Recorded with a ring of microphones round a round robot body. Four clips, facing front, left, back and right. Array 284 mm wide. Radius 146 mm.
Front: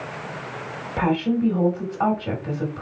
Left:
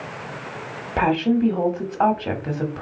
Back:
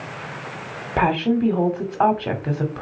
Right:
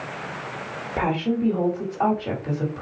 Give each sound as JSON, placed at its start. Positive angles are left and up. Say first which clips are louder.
{"t": 1.0, "sound": "a woman speaking", "louder": "left 4 dB, back 2 dB", "azimuth_deg": 150, "distance_m": 1.5}